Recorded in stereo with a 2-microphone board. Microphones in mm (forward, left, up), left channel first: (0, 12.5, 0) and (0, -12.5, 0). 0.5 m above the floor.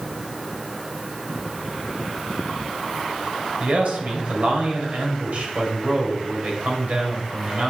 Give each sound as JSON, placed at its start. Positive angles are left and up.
{"t": 3.6, "sound": "a man speaking", "side_deg": -65, "distance_m": 3.0}